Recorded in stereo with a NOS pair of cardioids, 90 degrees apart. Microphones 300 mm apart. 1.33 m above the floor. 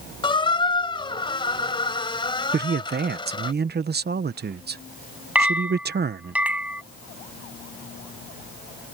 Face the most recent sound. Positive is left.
turn(degrees=-5)